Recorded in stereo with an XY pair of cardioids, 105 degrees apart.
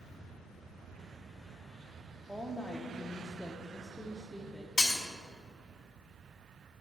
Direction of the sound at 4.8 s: 40° left.